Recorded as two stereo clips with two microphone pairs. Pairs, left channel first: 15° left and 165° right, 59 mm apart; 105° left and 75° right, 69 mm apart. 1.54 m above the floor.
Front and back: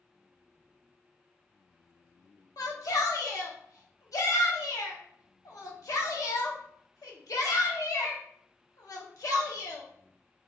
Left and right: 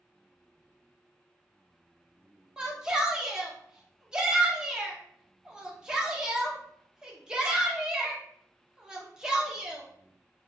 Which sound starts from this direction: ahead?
A shout, at 2.6 s.